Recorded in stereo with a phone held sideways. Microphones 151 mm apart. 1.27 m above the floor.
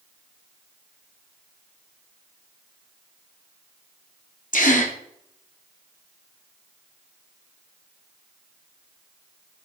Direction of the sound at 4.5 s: 65° left (ahead or behind).